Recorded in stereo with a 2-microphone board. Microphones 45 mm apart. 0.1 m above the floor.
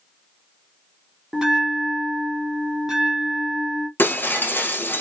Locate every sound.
1.3 s a bell: 5° right (ahead or behind), 1.1 m
4.0 s breaking glass: 45° left (ahead or behind), 1.1 m